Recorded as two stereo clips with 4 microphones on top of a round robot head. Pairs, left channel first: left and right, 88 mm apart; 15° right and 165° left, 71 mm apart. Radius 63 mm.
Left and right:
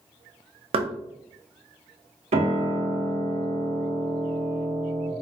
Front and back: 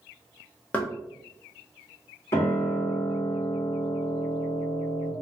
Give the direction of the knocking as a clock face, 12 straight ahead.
3 o'clock.